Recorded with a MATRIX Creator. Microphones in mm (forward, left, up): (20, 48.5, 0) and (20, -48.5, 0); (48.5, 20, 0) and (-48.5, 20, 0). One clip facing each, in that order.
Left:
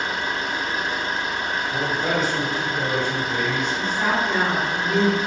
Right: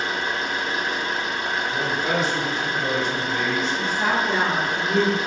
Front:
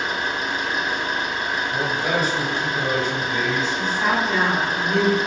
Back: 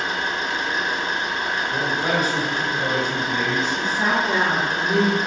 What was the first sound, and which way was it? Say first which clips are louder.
An engine running: even, even; 75° left.